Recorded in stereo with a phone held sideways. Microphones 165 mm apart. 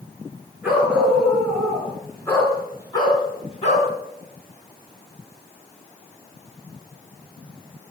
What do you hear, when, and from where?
0.6 s a dog barking: 10° right (ahead or behind), 5 m; by 3.9 s 50° left (ahead or behind), 3 m